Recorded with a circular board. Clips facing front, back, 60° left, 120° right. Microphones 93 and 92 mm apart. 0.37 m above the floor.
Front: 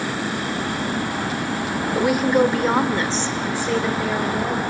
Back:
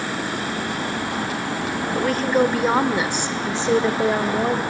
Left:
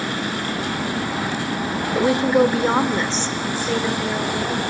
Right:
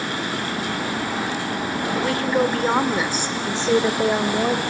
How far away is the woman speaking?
About 1.1 m.